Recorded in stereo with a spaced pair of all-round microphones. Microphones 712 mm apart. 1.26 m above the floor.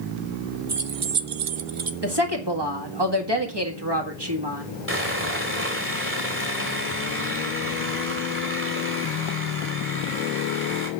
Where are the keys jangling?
45° right (ahead or behind), 0.8 m; by 1.9 s 40° right (ahead or behind), 0.7 m.